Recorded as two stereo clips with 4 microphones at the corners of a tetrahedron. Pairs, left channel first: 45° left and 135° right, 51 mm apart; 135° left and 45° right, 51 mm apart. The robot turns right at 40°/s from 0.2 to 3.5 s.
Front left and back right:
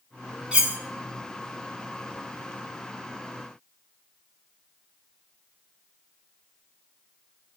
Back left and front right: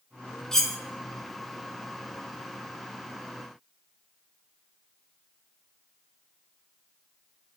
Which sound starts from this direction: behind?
Cutlery clinking, at 0.5 s.